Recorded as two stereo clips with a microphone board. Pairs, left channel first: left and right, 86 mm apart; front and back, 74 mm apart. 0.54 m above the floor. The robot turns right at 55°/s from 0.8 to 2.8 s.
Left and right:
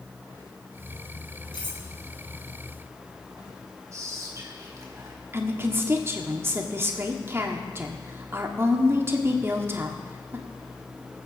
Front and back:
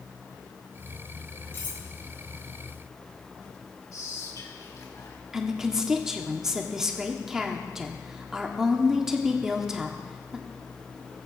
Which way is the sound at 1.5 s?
60° left.